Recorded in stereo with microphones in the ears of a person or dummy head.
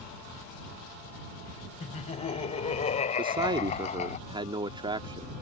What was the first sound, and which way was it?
Laughter, 40° left (ahead or behind).